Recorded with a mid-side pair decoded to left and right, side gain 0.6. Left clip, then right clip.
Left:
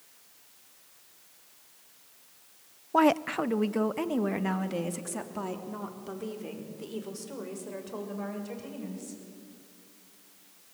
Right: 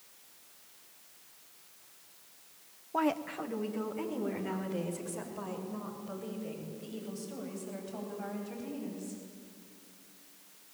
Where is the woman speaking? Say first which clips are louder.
Left 8 dB; 40° left, 0.5 m; by 9.2 s 65° left, 8 m.